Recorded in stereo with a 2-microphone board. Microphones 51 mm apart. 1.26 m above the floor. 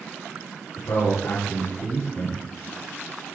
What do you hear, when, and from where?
0.8 s a man speaking: 65° left (ahead or behind), 2 m